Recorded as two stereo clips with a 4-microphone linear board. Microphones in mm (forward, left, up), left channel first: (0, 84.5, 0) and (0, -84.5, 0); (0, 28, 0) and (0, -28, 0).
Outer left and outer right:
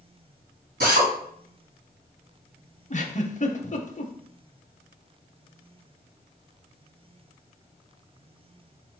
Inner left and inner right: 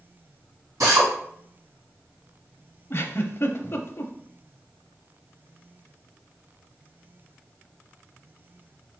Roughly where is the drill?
Right.